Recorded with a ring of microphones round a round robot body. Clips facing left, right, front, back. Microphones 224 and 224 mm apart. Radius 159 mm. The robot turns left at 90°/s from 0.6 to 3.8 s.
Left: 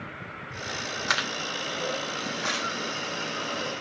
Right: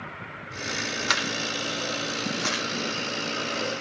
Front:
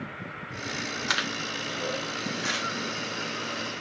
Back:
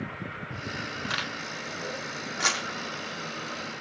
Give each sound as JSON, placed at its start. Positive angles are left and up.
{"t": 1.1, "sound": "a camera shutter", "azimuth_deg": -40, "distance_m": 8.0}